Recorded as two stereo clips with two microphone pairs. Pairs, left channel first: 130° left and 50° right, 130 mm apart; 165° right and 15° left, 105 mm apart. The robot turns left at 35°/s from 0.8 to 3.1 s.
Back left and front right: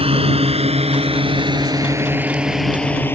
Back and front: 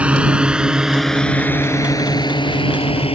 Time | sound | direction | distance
0.0 | a drone | 60° right | ?